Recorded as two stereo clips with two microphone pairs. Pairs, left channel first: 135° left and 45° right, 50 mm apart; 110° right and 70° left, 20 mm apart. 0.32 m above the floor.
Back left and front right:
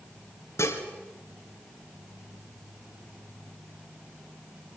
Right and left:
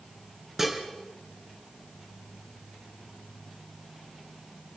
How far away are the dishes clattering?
About 3 m.